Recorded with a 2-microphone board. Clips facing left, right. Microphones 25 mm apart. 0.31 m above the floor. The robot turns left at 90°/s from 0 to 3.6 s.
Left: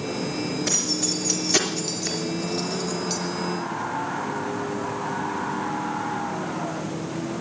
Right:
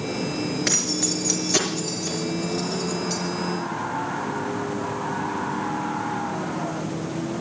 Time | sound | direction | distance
0.7 | keys jangling | 65° right (ahead or behind) | 3.5 m